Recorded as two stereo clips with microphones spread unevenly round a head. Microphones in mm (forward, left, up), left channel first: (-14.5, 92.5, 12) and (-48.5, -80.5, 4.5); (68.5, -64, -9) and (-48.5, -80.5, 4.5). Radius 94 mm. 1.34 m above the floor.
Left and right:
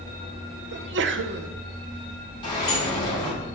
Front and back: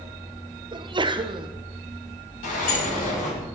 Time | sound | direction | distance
0.7 | a sneeze | 120° right | 0.7 m
2.4 | a sliding door | 10° left | 3 m